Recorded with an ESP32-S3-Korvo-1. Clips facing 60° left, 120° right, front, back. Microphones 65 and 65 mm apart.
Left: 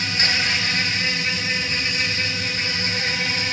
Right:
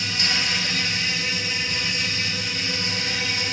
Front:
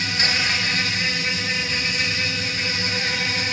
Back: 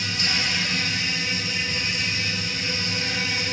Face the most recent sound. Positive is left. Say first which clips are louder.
# left 3 dB, front 4 dB
turn(degrees=25)